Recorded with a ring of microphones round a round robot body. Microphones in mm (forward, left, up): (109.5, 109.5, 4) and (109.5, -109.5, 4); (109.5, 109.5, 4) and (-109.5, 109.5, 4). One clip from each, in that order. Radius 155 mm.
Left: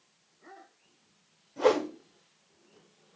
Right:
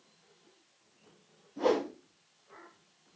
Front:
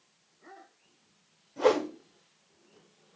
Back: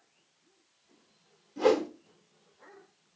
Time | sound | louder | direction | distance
1.6 | a whoosh | left 4 dB, even | 120° left | 2 m